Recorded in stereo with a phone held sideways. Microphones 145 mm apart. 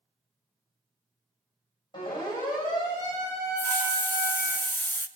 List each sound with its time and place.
1.9 s a siren: 30° left (ahead or behind), 6.5 m; by 4.6 s 15° left (ahead or behind), 4 m
3.6 s a hiss: 15° left (ahead or behind), 0.6 m